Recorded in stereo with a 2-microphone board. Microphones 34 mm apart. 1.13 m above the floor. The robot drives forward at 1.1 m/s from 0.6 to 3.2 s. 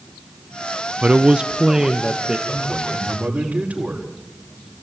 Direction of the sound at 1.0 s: 35° right (ahead or behind).